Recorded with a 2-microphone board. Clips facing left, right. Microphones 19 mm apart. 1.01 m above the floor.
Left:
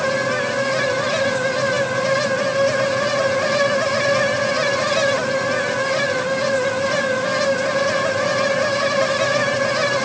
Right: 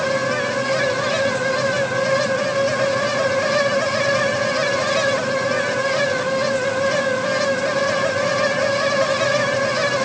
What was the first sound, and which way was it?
Only background noise.